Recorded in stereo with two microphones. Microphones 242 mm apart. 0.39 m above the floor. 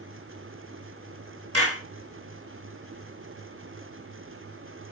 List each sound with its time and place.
1.5 s a clap: 75° right (ahead or behind), 4 m